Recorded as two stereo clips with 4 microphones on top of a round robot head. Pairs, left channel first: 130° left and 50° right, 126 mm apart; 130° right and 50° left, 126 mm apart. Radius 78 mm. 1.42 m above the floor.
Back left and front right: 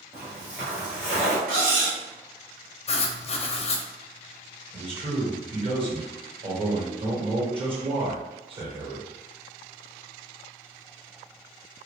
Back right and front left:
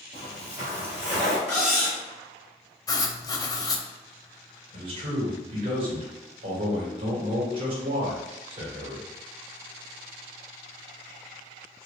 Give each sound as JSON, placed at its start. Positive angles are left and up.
{"t": 0.1, "sound": "footsteps", "azimuth_deg": 10, "distance_m": 1.5}
{"t": 1.5, "sound": "cutlery clinking", "azimuth_deg": -45, "distance_m": 1.4}
{"t": 2.9, "sound": "writing", "azimuth_deg": 170, "distance_m": 0.5}
{"t": 4.7, "sound": "a man speaking", "azimuth_deg": 0, "distance_m": 1.4}